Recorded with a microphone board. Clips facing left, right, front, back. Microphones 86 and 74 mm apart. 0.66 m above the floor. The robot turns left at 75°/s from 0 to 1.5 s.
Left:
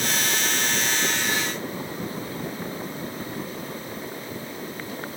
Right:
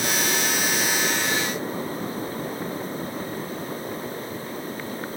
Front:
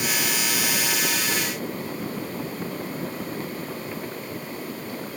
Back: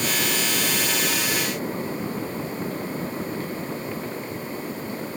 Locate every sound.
Only background noise.